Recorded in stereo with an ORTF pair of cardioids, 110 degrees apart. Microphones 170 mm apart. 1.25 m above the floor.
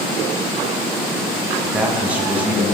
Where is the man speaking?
10° right, 1.1 m.